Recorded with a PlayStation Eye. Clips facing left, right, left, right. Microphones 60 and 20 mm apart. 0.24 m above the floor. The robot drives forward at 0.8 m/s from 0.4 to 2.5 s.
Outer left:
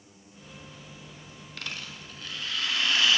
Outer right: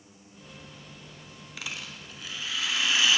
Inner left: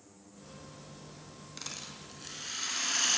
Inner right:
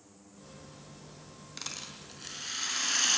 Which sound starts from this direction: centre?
A rattle, at 1.6 s.